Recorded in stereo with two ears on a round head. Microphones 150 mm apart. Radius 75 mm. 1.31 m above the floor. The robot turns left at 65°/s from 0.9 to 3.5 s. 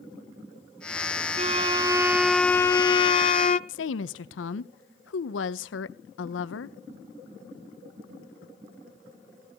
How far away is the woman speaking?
About 0.8 m.